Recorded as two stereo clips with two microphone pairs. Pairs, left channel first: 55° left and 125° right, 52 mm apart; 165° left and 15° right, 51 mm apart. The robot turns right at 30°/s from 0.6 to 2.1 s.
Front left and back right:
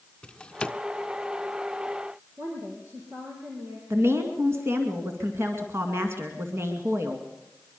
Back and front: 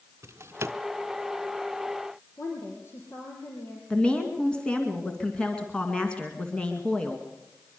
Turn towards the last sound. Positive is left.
turn(degrees=-130)